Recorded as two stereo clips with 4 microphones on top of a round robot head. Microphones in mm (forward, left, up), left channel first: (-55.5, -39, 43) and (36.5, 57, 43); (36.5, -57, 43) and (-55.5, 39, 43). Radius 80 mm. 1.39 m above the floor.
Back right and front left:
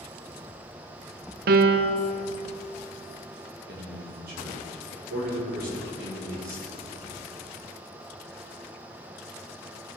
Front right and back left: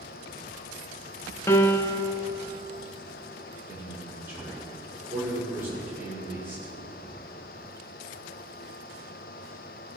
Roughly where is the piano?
Ahead left.